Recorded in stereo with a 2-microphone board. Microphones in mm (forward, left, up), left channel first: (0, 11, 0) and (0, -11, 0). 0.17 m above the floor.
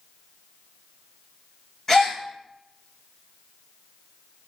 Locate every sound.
1.9 s a gasp: 20° left (ahead or behind), 1.5 m